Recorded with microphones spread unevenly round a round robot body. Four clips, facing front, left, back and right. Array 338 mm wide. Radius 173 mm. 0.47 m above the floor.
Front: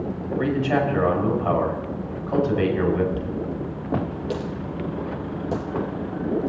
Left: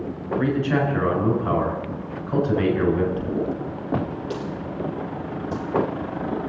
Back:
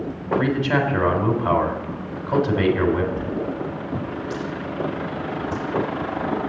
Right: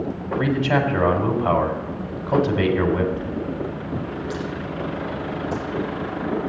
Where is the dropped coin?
10° right, 3.5 m.